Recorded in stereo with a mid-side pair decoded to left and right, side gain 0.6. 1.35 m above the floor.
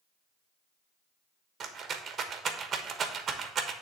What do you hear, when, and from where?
1.6 s a rattle: 40° right, 1.1 m